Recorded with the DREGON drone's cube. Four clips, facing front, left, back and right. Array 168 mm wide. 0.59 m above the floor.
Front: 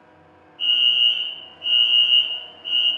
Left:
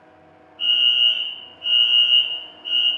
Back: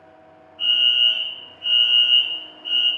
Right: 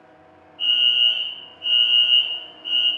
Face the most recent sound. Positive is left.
turn(degrees=120)